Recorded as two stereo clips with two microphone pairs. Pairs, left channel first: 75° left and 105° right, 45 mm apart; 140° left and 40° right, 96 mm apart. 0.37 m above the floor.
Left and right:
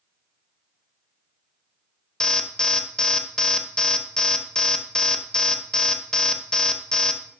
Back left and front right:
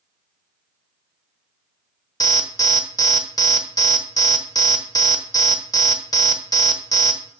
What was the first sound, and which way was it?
An alarm, 140° left.